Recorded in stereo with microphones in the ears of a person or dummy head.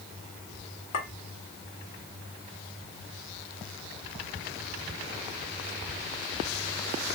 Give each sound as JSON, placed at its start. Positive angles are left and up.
{"t": 0.9, "sound": "a clink", "side_deg": 40, "distance_m": 1.6}